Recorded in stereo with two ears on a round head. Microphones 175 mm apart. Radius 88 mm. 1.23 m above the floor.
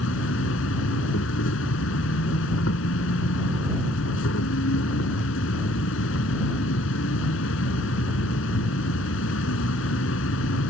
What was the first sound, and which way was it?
An insect, 70° left (ahead or behind).